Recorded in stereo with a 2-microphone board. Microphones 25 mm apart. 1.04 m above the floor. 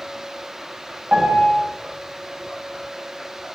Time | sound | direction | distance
1.1 | a piano | 60° right (ahead or behind) | 1.3 m